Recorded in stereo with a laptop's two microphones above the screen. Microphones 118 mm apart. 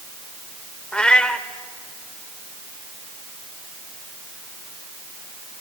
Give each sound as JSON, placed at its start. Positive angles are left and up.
{"t": 0.9, "sound": "a cat meowing", "side_deg": 10, "distance_m": 0.8}